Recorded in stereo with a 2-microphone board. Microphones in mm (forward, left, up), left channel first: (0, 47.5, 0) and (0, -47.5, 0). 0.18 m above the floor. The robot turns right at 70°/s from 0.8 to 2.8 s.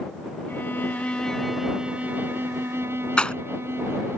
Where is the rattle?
10° left (ahead or behind).